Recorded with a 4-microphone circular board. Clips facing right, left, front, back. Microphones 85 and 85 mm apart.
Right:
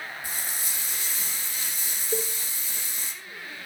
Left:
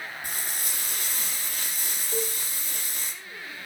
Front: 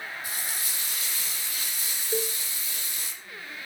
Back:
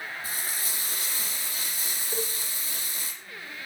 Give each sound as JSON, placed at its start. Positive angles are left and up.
{"t": 0.2, "sound": "frying", "azimuth_deg": 125, "distance_m": 7.0}
{"t": 2.1, "sound": "a cowbell", "azimuth_deg": -65, "distance_m": 1.6}